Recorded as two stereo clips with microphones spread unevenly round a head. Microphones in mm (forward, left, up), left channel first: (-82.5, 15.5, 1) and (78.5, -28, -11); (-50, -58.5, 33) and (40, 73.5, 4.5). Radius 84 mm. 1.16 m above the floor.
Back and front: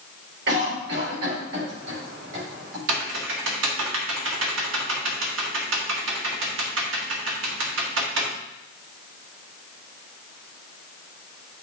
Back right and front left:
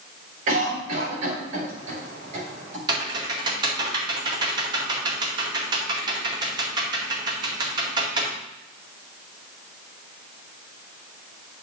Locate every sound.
0.5 s a cough: 5° left, 5 m
2.9 s typing on a keyboard: 5° right, 1.9 m